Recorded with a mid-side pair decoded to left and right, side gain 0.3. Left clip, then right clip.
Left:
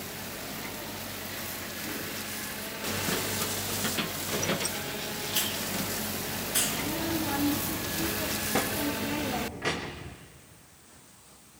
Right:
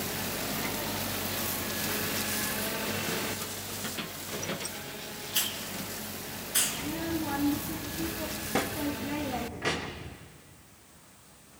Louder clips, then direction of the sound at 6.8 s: Left 2 dB; straight ahead.